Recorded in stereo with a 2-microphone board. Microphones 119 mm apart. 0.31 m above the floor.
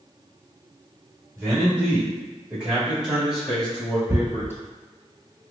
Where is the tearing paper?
20° right (ahead or behind), 0.8 m.